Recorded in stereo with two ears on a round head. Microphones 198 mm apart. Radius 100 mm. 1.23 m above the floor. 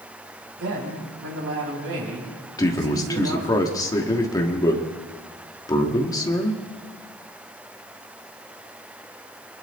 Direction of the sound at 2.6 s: 20° left (ahead or behind).